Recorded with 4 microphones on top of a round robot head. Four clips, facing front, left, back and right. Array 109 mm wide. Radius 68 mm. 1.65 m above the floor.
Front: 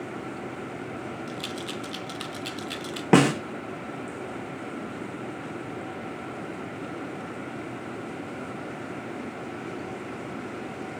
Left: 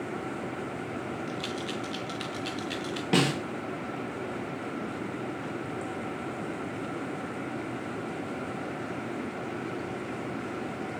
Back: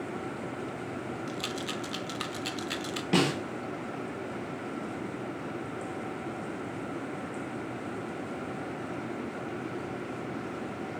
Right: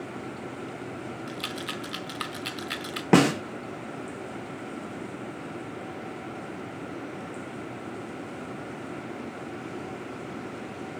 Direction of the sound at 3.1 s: 35° right.